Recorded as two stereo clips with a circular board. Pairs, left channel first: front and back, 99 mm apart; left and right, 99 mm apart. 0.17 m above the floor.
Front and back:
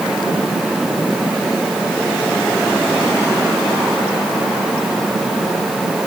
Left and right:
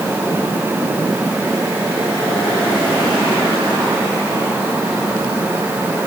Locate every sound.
Only background noise.